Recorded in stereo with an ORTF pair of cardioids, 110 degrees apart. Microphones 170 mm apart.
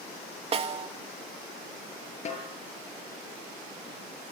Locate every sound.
0.5 s a snare drum: 35° right, 2.5 m
2.2 s a snare drum: 40° left, 7.5 m